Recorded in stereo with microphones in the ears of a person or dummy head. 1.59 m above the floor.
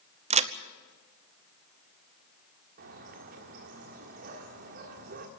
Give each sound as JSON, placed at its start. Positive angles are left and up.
{"t": 0.3, "sound": "a crack", "side_deg": -40, "distance_m": 0.7}
{"t": 2.8, "sound": "a bird", "side_deg": -45, "distance_m": 1.6}